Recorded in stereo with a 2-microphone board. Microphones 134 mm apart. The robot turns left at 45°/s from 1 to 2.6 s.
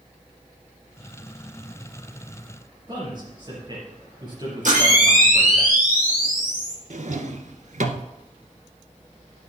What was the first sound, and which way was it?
A man speaking, 35° right (ahead or behind).